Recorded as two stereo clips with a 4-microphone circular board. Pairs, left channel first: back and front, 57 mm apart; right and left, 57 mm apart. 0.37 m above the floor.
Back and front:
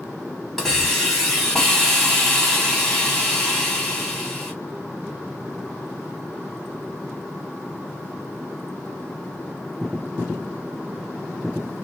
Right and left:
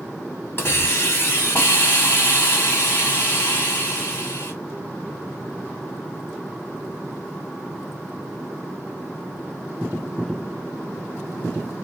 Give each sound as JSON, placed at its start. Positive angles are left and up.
{"t": 0.6, "sound": "a hiss", "azimuth_deg": -95, "distance_m": 1.5}